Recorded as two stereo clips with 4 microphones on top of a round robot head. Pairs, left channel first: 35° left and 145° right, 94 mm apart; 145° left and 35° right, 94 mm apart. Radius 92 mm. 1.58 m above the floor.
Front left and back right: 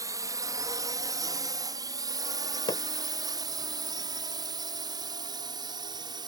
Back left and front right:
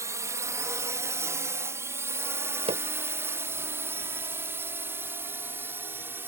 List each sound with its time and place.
0.0 s a drone: 95° right; by 6.3 s 100° right
2.7 s hammering: 10° right